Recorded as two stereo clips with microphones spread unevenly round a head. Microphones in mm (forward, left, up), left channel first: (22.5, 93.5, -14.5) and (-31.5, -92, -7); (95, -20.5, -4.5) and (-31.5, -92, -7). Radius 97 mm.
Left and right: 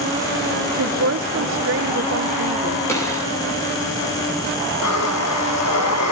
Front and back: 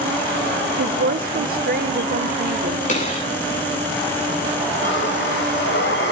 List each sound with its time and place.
0.8 s a woman speaking: 130° right, 0.7 m
2.9 s a gunshot: straight ahead, 7 m
4.8 s breathing: 65° left, 2 m